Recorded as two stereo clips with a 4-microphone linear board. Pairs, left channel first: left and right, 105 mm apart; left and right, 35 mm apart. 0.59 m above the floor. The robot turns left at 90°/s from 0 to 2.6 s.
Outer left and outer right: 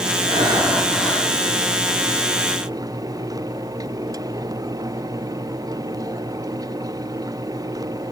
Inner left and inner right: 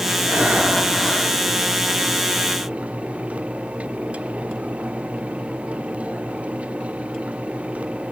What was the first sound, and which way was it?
Breathing, 115° right.